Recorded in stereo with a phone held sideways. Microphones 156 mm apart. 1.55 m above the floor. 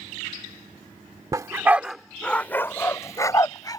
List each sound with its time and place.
1.3 s a dog barking: 25° right (ahead or behind); by 3.8 s 25° left (ahead or behind)